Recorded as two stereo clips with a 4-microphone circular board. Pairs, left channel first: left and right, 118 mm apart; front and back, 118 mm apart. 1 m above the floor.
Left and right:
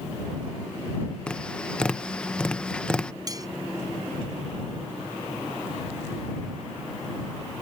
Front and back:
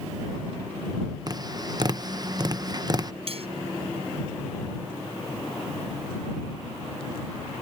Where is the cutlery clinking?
150° right.